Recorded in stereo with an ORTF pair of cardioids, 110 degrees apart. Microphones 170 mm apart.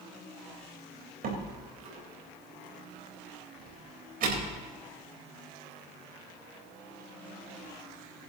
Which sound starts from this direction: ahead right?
A door slam, at 1.2 s.